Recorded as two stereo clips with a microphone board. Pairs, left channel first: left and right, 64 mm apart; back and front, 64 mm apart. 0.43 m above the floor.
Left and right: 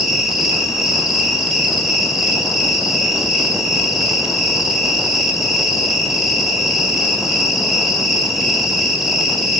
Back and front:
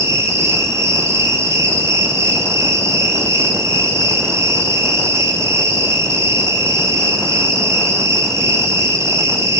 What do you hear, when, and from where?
0.0 s an insect: 5° right, 2.5 m